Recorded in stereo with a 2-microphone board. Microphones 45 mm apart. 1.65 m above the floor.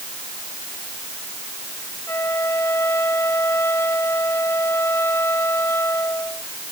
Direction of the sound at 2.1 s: 80° left.